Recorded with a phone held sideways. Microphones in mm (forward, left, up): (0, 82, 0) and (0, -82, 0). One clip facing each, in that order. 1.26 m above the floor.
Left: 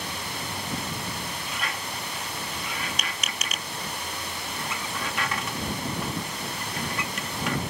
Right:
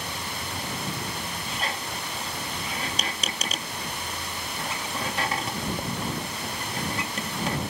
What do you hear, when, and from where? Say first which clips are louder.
1.5 s a squeak: right 2 dB; 30° right (ahead or behind)